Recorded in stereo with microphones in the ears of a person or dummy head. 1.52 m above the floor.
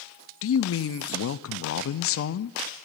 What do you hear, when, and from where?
0.4 s a man speaking: 65° left (ahead or behind), 0.6 m